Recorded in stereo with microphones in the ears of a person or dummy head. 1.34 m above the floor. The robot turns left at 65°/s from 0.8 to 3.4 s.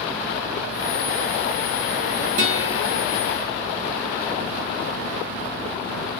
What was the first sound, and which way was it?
A guitar, 55° right.